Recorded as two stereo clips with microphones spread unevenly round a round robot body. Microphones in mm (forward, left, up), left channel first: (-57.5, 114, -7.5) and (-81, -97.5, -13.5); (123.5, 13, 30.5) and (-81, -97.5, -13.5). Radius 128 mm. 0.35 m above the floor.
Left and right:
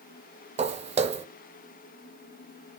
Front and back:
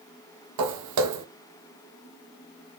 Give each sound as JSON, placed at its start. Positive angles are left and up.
{"t": 0.6, "sound": "footsteps", "azimuth_deg": -155, "distance_m": 0.6}